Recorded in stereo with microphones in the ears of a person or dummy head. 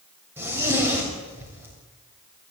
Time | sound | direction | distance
0.4 | a zipper | 15° right (ahead or behind) | 6.5 m